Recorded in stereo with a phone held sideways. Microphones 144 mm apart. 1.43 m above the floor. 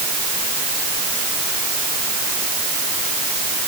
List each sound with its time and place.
Only background noise.